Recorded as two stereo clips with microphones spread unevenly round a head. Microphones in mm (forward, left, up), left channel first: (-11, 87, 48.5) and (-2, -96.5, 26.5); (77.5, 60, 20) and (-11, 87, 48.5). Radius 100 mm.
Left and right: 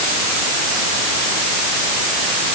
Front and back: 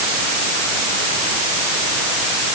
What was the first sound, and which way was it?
Only background noise.